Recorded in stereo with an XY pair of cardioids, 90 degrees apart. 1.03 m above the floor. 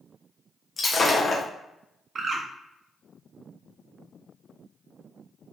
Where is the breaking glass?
45° left, 0.9 m.